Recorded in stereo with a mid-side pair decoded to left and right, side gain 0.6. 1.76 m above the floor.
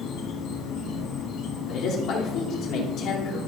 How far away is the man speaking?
About 2.5 m.